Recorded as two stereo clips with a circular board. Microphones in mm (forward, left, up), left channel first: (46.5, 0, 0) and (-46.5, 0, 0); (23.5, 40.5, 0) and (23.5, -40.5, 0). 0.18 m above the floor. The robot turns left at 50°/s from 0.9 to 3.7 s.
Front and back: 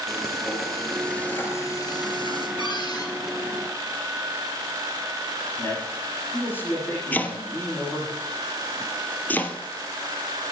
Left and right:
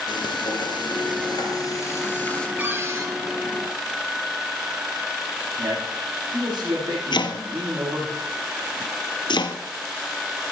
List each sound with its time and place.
0.1 s frying: 90° left, 4.5 m; by 2.5 s 10° left, 4.5 m
2.6 s a cupboard door: 25° right, 3 m; by 3.1 s 50° right, 3 m
5.6 s a man speaking: 65° right, 9 m
7.1 s chopping: 70° left, 1.3 m